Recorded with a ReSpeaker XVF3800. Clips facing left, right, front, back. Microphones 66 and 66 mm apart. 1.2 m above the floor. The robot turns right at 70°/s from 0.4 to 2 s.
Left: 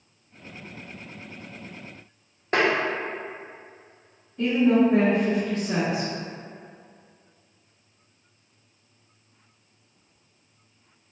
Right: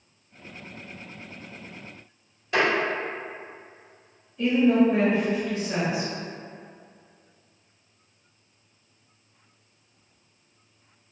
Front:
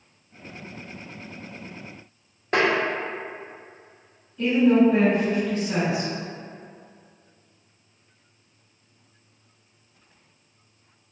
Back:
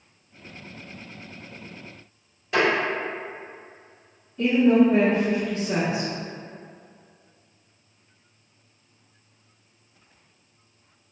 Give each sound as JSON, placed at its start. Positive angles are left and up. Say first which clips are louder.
{"t": 2.5, "sound": "tapping", "louder": "left 1 dB, even", "azimuth_deg": 45, "distance_m": 0.7}
{"t": 4.4, "sound": "a woman speaking", "louder": "even, even", "azimuth_deg": 125, "distance_m": 1.0}